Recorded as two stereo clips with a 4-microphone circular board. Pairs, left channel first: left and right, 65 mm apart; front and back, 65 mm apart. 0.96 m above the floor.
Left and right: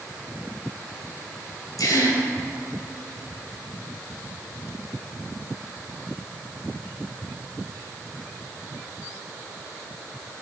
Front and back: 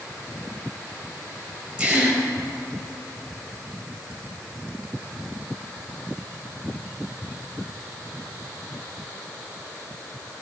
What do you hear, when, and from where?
1.8 s a gasp: 115° left, 4.5 m